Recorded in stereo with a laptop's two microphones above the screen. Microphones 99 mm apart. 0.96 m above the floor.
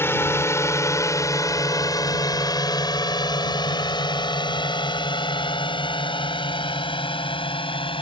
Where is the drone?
25° left (ahead or behind); by 8.0 s 65° left (ahead or behind).